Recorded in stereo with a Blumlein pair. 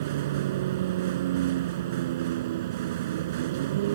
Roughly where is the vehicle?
Ahead right.